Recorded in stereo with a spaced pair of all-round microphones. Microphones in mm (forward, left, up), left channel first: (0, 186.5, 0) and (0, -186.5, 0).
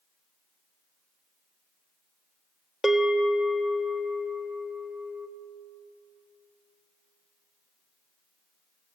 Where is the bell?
Centre (ahead or behind), 1.3 m.